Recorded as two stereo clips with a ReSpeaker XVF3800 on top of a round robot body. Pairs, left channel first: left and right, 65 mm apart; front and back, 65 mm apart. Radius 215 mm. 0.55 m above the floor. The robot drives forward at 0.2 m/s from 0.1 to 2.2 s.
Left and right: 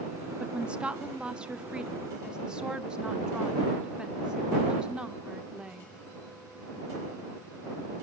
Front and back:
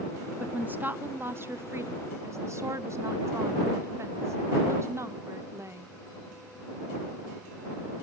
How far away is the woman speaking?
About 0.8 m.